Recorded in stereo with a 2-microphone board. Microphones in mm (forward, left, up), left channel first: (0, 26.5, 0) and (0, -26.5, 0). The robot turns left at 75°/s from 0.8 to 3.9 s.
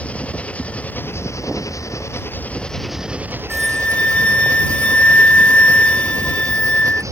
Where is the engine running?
155° left; by 7.1 s 75° right.